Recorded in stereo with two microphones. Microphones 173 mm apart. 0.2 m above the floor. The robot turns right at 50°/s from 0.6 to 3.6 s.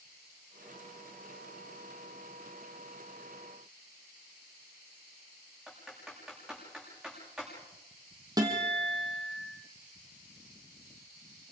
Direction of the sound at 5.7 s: Centre (ahead or behind).